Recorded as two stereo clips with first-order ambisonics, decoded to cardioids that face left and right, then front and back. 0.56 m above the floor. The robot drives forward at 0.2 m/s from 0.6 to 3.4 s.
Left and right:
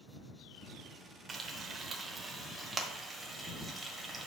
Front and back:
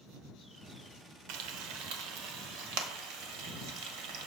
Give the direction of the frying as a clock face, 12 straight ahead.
5 o'clock.